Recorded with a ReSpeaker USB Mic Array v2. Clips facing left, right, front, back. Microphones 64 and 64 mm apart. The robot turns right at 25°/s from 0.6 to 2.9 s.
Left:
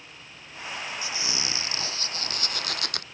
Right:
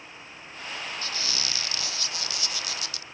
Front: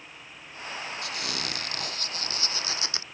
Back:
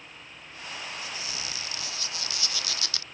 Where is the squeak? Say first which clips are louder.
Left 1 dB, front 4 dB; 15° left; by 3.0 s 60° left.